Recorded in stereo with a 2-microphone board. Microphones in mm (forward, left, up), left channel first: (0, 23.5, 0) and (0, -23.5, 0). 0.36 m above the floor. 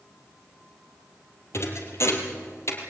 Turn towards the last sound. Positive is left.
turn(degrees=65)  # may be behind; listen again after turning